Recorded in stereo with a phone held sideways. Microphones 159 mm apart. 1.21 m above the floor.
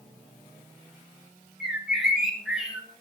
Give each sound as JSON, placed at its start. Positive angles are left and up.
{"t": 1.6, "sound": "a bird", "side_deg": -5, "distance_m": 6.5}